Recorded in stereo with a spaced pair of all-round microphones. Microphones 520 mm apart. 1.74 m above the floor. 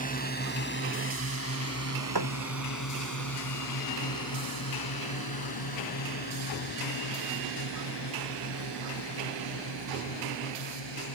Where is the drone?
15° left (ahead or behind); by 11.2 s 55° left (ahead or behind).